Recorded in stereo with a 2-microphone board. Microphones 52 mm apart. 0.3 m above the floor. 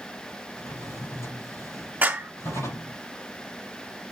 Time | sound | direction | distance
0.6 | a drawer | 85° left | 5.5 m
2.0 | a clap | 30° right (ahead or behind) | 1.4 m